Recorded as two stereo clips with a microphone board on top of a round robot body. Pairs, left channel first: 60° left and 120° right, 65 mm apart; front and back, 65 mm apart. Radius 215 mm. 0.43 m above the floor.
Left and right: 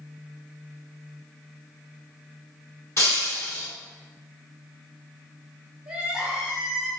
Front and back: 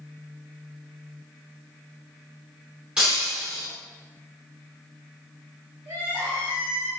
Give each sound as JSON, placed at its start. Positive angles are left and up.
{"t": 3.0, "sound": "breaking glass", "azimuth_deg": 105, "distance_m": 1.9}
{"t": 5.8, "sound": "crying", "azimuth_deg": 160, "distance_m": 1.7}